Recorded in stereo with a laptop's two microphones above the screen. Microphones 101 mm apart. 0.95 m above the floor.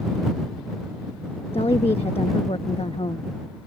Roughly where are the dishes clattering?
I don't hear dishes clattering.